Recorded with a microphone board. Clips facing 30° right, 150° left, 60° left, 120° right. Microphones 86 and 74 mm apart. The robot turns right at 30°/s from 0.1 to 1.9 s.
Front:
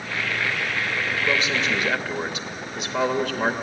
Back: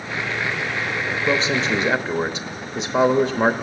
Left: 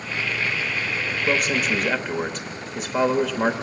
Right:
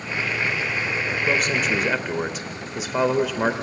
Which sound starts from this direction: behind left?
A man speaking, at 1.3 s.